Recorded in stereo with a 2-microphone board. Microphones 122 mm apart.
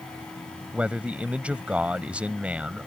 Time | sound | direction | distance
0.7 | a man speaking | 10° right (ahead or behind) | ?